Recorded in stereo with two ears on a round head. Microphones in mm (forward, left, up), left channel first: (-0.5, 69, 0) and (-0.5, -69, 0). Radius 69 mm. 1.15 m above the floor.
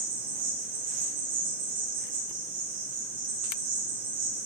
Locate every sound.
0.0 s an insect: 55° right (ahead or behind), 0.8 m